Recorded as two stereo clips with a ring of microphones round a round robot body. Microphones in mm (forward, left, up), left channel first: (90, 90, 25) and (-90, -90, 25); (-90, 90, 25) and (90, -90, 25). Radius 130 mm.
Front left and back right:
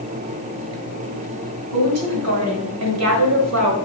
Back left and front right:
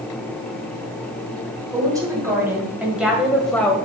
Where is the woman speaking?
120° right, 2.5 m; by 3.7 s 140° right, 1.5 m.